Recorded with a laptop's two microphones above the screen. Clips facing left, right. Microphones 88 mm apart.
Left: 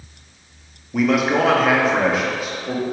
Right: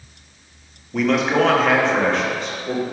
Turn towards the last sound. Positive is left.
turn(degrees=5)  # may be behind; listen again after turning